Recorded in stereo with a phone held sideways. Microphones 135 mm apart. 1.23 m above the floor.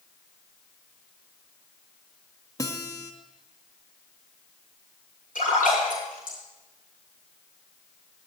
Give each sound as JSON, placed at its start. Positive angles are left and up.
{"t": 2.6, "sound": "a guitar", "side_deg": 25, "distance_m": 1.6}
{"t": 5.3, "sound": "a splash", "side_deg": 85, "distance_m": 9.5}